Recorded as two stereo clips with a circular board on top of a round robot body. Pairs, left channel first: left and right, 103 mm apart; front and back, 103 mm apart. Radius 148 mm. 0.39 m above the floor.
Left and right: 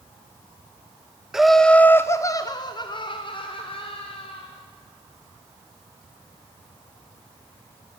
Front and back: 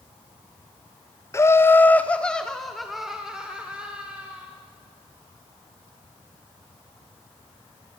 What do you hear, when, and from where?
1.3 s laughter: 10° right, 1.3 m; by 4.5 s 105° left, 3 m